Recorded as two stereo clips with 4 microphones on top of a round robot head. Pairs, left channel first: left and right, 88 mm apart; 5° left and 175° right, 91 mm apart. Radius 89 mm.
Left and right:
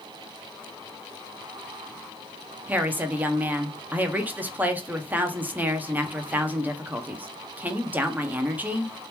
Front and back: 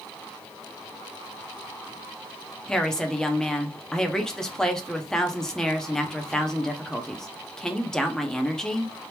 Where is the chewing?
No chewing in this recording.